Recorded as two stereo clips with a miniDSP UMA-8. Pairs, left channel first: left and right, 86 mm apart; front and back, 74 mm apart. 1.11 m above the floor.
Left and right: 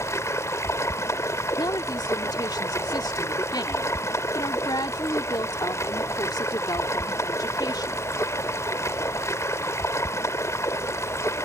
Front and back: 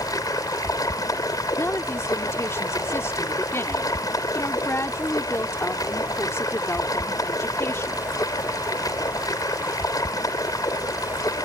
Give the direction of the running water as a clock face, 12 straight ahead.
11 o'clock.